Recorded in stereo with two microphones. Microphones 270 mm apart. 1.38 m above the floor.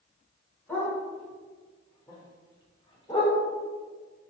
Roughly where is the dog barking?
Centre.